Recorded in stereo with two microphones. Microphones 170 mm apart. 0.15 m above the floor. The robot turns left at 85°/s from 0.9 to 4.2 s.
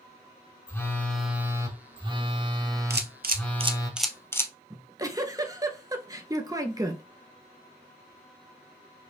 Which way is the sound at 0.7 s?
25° left.